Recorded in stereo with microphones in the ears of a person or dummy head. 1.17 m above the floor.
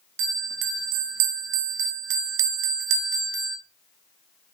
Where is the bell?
70° right (ahead or behind), 1.1 m.